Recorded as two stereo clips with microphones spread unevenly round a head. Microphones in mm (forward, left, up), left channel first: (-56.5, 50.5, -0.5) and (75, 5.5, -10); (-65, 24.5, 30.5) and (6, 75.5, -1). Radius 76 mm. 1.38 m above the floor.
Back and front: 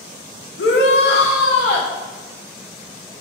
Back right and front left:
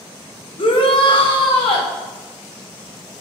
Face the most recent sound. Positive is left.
turn(degrees=-175)